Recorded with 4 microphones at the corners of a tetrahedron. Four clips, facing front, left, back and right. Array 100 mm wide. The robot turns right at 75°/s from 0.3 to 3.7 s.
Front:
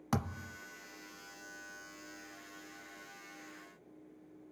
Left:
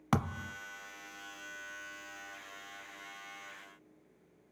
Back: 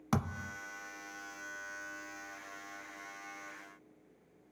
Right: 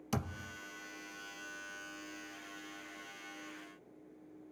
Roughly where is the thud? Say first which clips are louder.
Left 6 dB, back 2 dB; left.